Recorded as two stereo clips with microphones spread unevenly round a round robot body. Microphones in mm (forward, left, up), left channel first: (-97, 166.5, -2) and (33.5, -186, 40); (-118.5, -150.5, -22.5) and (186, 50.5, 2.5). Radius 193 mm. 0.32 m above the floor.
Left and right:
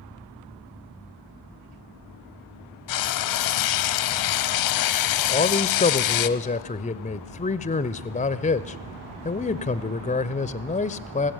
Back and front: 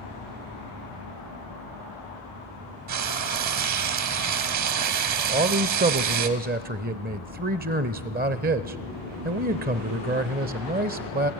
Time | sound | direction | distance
2.9 | frying | 80° left | 1.1 m
5.3 | a man speaking | 80° left | 0.9 m